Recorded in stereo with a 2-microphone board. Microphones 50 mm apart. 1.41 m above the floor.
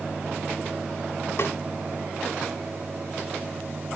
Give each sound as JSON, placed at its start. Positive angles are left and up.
{"t": 1.4, "sound": "a snare drum", "side_deg": 55, "distance_m": 2.0}